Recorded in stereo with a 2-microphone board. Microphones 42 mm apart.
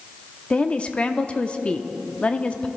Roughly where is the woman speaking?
Left.